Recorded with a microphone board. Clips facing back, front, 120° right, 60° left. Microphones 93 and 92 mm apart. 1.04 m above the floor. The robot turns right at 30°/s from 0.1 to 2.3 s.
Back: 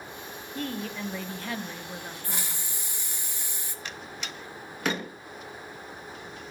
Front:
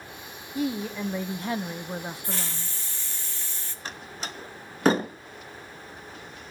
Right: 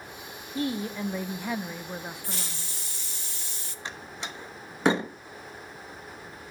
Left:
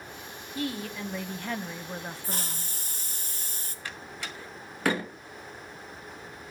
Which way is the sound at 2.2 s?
105° left.